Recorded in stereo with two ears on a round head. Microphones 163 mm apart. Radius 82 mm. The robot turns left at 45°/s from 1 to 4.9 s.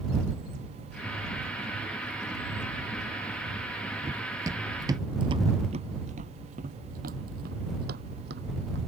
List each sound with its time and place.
4.0 s running footsteps: 20° right (ahead or behind); by 8.8 s 65° right (ahead or behind)